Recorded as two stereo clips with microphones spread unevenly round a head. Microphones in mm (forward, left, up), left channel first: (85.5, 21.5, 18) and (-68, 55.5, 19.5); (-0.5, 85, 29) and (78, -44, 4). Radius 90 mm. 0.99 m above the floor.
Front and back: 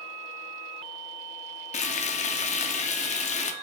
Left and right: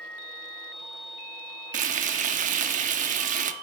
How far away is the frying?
About 0.5 m.